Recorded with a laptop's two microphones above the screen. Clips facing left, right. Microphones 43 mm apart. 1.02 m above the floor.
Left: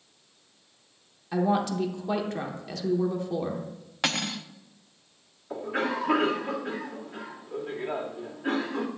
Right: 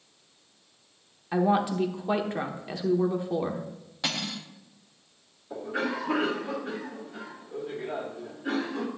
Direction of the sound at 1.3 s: 20° right (ahead or behind).